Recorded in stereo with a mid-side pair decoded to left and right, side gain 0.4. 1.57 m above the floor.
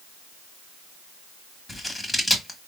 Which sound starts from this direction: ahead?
Scissors, at 1.7 s.